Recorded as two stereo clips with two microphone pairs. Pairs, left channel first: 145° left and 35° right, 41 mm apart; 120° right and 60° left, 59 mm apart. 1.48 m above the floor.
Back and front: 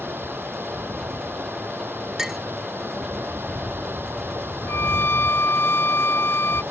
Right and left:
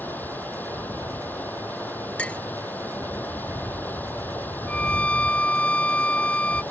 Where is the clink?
105° right.